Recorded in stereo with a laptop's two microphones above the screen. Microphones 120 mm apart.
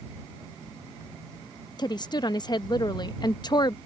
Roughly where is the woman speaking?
Left.